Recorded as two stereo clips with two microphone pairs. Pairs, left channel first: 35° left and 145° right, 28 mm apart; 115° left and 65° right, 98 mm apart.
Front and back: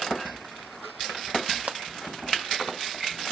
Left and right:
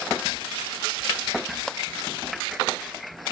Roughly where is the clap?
Behind.